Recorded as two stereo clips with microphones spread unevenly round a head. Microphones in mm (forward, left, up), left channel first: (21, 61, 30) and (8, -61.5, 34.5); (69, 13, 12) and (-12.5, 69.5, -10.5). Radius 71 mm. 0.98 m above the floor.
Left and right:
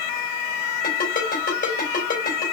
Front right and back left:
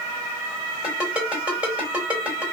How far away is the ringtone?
About 3 m.